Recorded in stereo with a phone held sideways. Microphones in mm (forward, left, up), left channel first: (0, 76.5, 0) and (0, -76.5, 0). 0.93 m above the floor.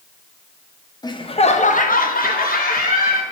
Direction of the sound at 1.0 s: 25° left (ahead or behind).